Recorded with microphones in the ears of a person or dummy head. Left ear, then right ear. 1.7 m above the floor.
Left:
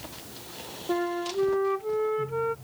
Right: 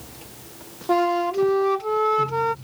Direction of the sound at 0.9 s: 60° right (ahead or behind).